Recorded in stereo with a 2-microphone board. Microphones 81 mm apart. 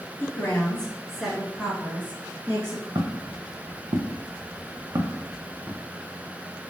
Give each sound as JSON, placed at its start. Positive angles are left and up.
{"t": 0.2, "sound": "a woman speaking", "side_deg": 20, "distance_m": 1.6}
{"t": 3.0, "sound": "footsteps", "side_deg": -55, "distance_m": 0.9}